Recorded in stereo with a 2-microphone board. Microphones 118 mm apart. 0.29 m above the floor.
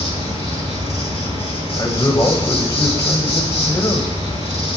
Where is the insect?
60° left (ahead or behind), 3.5 m.